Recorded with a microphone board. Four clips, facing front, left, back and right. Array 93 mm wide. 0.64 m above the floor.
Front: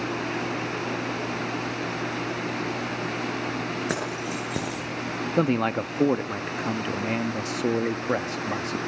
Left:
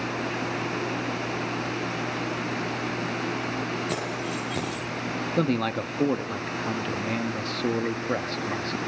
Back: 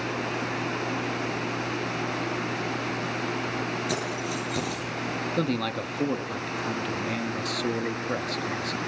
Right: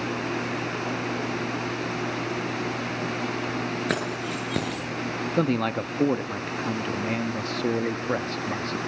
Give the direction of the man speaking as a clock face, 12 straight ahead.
12 o'clock.